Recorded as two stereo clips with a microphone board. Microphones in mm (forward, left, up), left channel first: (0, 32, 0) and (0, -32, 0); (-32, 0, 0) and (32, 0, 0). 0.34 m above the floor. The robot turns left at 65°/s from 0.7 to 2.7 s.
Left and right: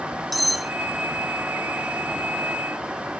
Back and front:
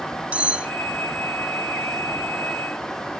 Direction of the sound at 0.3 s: Straight ahead.